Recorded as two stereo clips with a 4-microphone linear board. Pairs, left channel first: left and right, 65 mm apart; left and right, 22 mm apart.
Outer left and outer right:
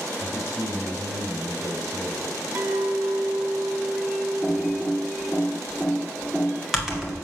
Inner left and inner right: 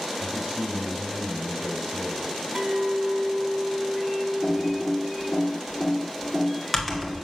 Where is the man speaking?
75° right (ahead or behind), 4 m.